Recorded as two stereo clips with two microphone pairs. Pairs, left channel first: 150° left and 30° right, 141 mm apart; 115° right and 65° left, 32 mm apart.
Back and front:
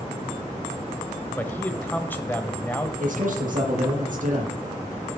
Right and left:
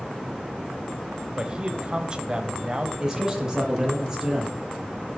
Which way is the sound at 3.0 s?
5° right.